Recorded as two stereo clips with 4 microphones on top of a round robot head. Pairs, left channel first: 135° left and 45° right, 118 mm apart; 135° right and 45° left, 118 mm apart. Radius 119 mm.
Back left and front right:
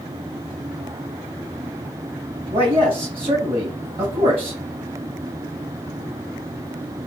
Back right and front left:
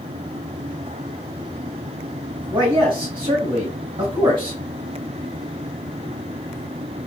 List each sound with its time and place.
2.5 s a man speaking: straight ahead, 3 m